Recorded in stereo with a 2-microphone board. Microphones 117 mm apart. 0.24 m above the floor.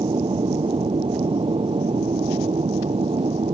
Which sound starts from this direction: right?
An aircraft, at 0.0 s.